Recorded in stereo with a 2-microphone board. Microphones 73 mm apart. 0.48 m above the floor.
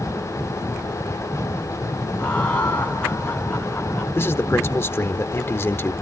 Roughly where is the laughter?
Centre.